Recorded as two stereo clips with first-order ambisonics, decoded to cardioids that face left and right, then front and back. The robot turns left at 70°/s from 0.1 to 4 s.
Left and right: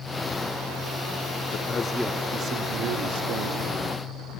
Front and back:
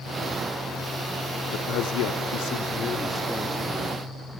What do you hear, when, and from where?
1.5 s a man speaking: 40° left, 1.0 m; by 3.7 s 115° right, 1.0 m